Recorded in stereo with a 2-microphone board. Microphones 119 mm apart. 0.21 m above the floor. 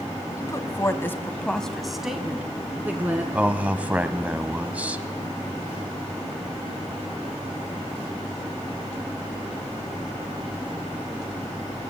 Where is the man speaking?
10° right (ahead or behind), 1.0 m.